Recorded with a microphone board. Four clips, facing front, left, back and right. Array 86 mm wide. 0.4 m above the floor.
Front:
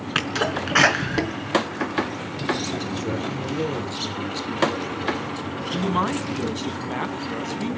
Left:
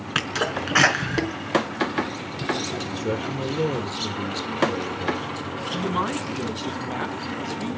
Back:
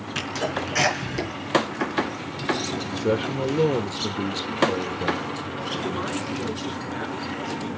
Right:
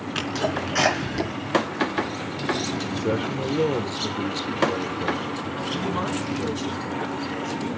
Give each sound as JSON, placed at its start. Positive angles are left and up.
{"t": 0.1, "sound": "a sneeze", "azimuth_deg": 35, "distance_m": 4.0}
{"t": 2.9, "sound": "a man speaking", "azimuth_deg": -155, "distance_m": 1.2}
{"t": 5.7, "sound": "a man speaking", "azimuth_deg": 15, "distance_m": 4.0}